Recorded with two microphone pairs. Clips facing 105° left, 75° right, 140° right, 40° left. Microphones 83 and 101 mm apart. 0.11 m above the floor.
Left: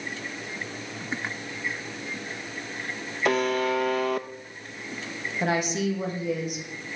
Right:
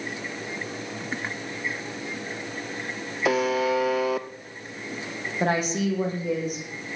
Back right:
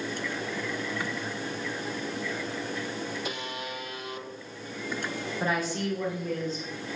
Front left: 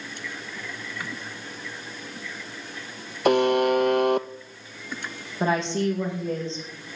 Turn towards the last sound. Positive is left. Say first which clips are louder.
# right 1 dB, front left 7 dB
turn(degrees=-25)